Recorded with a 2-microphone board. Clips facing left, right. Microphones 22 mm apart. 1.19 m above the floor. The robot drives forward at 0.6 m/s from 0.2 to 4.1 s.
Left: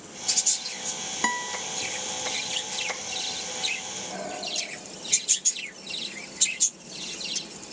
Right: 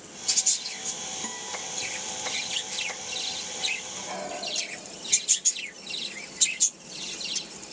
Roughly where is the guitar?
Left.